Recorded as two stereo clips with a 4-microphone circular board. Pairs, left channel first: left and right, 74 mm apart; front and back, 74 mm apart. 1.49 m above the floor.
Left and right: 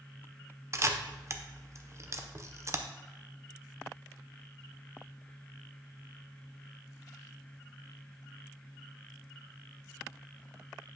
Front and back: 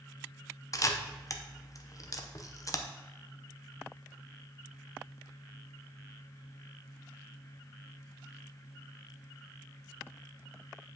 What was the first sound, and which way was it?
A camera shutter, 40° right.